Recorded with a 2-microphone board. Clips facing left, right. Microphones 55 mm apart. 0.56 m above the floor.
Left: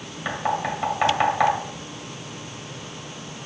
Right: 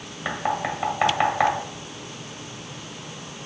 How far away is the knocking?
About 1.9 m.